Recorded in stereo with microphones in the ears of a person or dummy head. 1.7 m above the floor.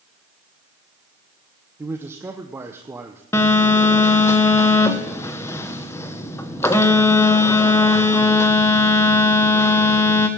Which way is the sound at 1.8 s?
15° right (ahead or behind).